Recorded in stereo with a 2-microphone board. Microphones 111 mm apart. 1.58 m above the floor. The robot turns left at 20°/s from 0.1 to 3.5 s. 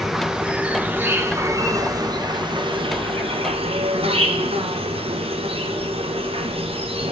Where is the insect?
Straight ahead, 1.1 m; by 7.1 s 70° right, 1.1 m.